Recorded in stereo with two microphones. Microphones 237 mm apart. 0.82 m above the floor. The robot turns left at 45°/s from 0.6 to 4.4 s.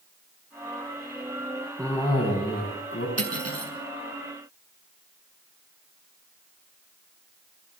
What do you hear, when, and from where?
1.8 s a cough: 175° left, 6 m; by 3.1 s 115° left, 6 m
3.2 s cutlery clinking: 85° right, 6 m; by 3.7 s 70° right (ahead or behind), 6 m